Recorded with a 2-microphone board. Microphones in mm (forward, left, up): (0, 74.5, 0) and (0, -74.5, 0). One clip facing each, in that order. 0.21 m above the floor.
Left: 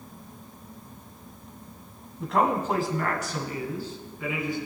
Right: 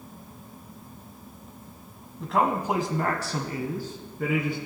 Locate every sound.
2.2 s a man speaking: 5° left (ahead or behind), 1.1 m; by 4.7 s 60° right (ahead or behind), 2 m